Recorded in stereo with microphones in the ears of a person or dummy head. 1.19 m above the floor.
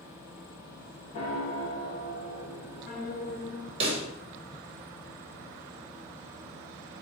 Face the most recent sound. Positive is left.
turn(degrees=-30)  # may be behind; listen again after turning